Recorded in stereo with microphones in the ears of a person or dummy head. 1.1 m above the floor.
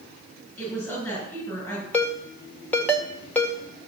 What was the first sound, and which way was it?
A woman speaking, 10° left (ahead or behind).